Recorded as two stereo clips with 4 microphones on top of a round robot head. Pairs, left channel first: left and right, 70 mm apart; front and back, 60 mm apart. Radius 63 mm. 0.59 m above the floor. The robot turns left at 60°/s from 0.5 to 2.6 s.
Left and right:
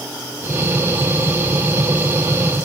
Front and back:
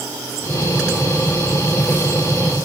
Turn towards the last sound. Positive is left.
No sound to turn to.